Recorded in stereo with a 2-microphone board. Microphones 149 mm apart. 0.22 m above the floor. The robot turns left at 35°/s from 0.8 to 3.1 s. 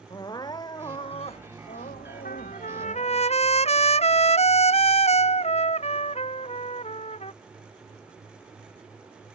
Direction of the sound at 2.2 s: 75° left (ahead or behind).